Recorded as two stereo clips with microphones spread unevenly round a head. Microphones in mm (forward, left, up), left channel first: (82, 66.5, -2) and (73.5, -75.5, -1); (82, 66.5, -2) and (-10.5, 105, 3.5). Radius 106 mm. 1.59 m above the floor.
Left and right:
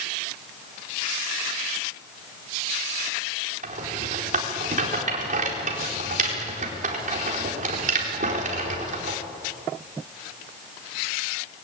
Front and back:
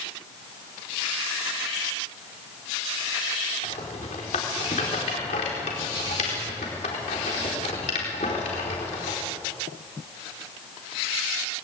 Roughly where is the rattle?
Ahead right.